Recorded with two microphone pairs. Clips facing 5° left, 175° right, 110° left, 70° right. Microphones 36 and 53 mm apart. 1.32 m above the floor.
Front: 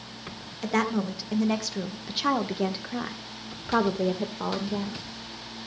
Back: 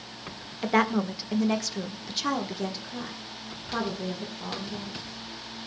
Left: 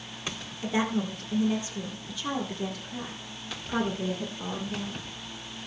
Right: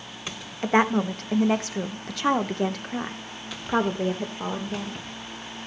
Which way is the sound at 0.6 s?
100° right.